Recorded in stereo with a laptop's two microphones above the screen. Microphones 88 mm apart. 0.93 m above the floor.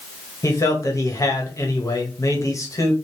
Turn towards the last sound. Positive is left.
turn(degrees=35)  # may be behind; listen again after turning